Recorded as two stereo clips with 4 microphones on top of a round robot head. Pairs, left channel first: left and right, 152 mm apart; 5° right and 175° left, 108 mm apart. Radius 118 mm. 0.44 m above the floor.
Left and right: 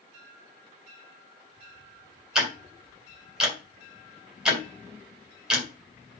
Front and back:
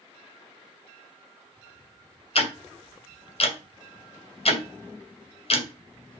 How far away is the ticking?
About 2 m.